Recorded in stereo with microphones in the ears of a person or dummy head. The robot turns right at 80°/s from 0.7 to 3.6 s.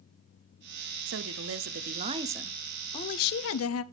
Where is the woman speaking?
110° right, 0.6 m; by 3.8 s 90° left, 0.6 m.